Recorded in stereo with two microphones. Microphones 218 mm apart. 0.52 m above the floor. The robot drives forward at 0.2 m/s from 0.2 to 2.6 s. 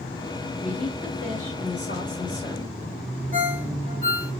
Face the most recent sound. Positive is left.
turn(degrees=-40)  # may be behind; listen again after turning